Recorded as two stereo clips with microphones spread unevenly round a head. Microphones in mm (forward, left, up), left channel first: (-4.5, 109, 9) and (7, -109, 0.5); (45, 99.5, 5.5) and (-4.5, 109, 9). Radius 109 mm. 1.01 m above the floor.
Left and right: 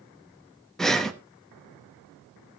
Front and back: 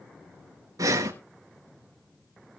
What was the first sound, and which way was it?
Breathing, straight behind.